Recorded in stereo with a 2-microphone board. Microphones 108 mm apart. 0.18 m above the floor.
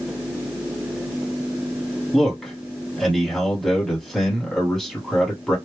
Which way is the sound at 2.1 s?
Centre (ahead or behind).